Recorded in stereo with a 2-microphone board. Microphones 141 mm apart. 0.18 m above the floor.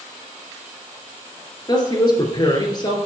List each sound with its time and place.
1.7 s a woman speaking: 30° left (ahead or behind), 2.5 m